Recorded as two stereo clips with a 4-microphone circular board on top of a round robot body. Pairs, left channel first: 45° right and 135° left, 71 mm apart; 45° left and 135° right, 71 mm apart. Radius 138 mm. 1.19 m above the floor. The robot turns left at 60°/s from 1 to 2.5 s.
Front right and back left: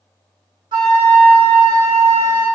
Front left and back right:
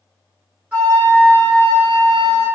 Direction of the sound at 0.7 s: 160° left.